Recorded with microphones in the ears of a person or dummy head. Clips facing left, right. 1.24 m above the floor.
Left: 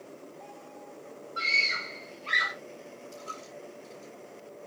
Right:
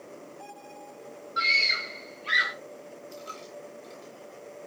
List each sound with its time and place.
1.4 s a scream: 20° right (ahead or behind), 3.5 m; by 2.5 s 15° right (ahead or behind), 3 m
3.1 s a dropped coin: 20° right (ahead or behind), 6 m